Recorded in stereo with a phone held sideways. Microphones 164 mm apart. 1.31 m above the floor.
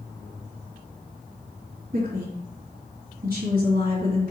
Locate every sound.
1.9 s a woman speaking: 60° right (ahead or behind), 3 m